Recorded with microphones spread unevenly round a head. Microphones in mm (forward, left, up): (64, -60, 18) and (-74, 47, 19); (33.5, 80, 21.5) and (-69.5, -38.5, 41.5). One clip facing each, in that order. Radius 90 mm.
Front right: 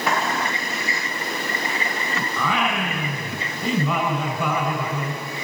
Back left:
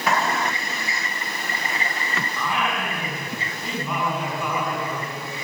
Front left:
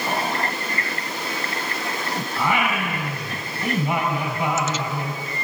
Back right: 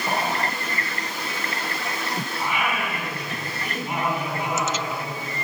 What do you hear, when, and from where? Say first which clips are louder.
2.4 s singing: front right 3 dB, front left 5 dB; 5° right, 3.5 m